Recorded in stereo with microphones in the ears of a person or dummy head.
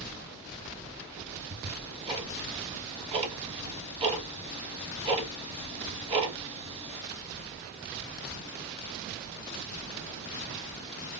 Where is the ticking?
30° right (ahead or behind), 1.0 m.